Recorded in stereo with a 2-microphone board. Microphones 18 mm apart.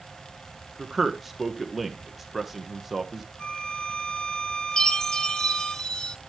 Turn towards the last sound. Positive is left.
turn(degrees=40)  # may be behind; listen again after turning